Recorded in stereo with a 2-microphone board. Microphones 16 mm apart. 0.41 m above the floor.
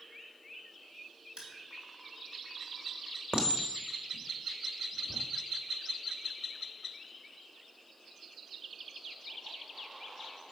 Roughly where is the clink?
Right.